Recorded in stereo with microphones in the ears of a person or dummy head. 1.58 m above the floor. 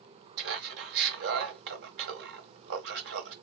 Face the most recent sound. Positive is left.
turn(degrees=-60)  # may be behind; listen again after turning